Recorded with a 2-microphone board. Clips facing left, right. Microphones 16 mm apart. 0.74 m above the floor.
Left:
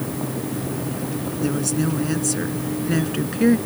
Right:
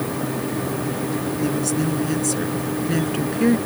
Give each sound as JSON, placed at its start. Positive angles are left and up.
{"t": 1.4, "sound": "a woman speaking", "side_deg": 5}